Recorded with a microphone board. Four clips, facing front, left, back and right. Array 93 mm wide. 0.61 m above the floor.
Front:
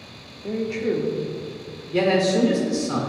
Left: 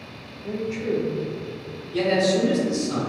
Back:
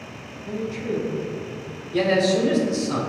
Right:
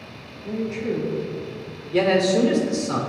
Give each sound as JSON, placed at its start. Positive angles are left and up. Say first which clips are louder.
{"t": 0.4, "sound": "a woman speaking", "louder": "right 1 dB, front 4 dB", "azimuth_deg": 5, "distance_m": 1.2}
{"t": 1.9, "sound": "a man speaking", "louder": "right 2 dB, even", "azimuth_deg": -60, "distance_m": 1.9}